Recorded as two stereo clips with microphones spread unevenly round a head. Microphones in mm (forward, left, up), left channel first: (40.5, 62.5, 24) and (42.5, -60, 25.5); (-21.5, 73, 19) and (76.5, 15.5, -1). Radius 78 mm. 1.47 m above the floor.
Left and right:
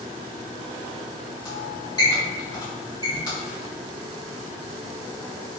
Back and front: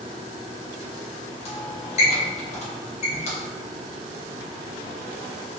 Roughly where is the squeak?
Behind.